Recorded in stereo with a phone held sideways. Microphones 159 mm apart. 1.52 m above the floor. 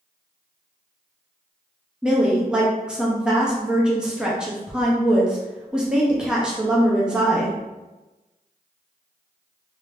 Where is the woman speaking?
5° right (ahead or behind), 0.7 m.